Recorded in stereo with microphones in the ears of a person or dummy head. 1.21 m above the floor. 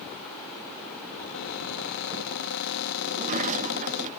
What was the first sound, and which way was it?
A cupboard door, 85° left.